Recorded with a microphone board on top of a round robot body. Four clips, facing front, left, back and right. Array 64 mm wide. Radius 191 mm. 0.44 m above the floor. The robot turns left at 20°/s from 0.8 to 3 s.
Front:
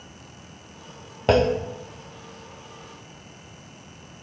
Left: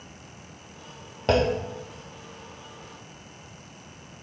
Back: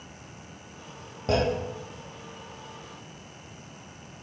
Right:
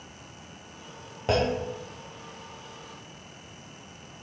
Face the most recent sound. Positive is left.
turn(degrees=-25)